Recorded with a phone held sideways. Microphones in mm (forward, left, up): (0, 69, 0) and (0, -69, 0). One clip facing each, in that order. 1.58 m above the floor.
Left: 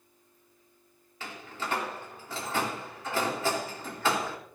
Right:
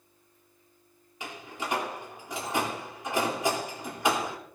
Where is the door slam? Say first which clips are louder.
Right 1 dB; 15° right (ahead or behind), 3 m.